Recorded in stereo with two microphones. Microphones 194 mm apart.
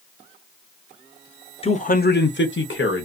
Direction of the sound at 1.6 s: 30° left (ahead or behind).